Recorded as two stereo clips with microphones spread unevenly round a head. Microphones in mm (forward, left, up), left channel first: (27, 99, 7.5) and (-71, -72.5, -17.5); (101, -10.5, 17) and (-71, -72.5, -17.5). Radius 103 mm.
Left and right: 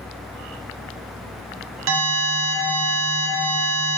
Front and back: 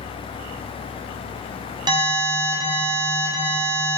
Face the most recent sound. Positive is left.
turn(degrees=-95)